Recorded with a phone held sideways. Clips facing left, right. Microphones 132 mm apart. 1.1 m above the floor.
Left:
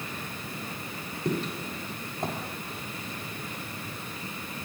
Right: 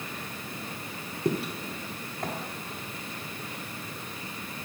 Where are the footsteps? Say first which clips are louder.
Right 1 dB; 20° right (ahead or behind), 1.1 m; by 2.4 s 30° left (ahead or behind), 1.2 m.